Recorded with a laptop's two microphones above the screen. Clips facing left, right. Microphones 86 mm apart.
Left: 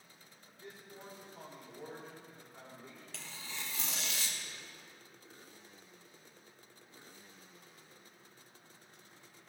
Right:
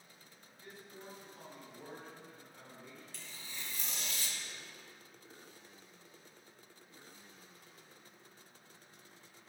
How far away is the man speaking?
About 3.5 m.